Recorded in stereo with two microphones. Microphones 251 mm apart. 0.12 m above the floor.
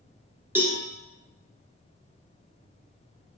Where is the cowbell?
10° right (ahead or behind), 1.1 m.